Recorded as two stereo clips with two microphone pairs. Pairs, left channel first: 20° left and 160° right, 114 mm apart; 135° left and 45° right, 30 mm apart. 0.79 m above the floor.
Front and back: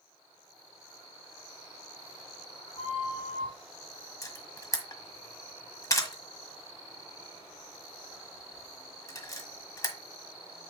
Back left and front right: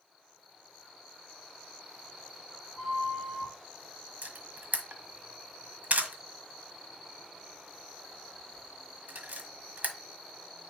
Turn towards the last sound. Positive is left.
turn(degrees=-40)